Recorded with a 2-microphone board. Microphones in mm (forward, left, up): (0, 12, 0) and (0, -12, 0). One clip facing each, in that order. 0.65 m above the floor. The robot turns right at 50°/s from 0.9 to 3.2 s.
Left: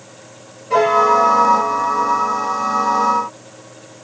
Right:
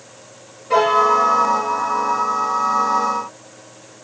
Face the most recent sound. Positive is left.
turn(degrees=-5)